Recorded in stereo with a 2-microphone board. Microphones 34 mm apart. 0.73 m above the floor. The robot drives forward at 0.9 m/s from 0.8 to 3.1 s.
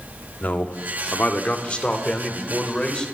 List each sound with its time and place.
0.4 s a man speaking: 55° left (ahead or behind), 1.4 m; by 3.0 s 25° left (ahead or behind), 3 m